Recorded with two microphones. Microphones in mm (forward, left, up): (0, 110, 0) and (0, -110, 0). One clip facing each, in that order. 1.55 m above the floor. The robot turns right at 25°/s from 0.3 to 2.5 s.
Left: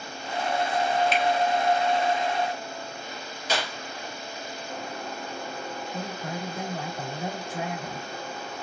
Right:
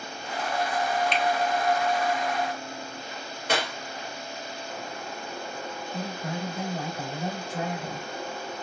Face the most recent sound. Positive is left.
turn(degrees=10)  # may be behind; listen again after turning